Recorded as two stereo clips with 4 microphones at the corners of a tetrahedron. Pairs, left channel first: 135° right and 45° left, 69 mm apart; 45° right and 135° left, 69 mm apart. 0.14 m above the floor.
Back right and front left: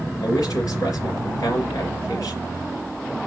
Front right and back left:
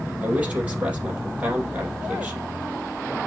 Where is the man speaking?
155° right, 4.5 m.